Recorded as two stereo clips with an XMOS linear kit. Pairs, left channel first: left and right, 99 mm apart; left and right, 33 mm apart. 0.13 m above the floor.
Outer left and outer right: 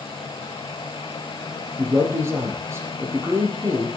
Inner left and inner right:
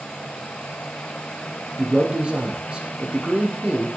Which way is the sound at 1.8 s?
30° right (ahead or behind).